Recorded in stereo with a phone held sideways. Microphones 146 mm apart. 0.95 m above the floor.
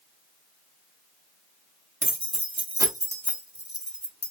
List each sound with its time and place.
2.0 s keys jangling: 55° right (ahead or behind), 1.2 m; by 4.3 s 15° left (ahead or behind), 1.4 m